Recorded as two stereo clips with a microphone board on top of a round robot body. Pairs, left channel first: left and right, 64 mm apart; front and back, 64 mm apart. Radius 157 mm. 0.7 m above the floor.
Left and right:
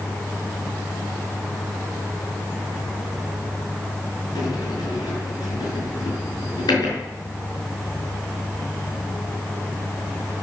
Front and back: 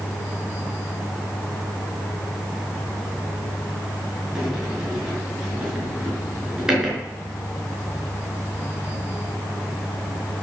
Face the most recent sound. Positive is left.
turn(degrees=100)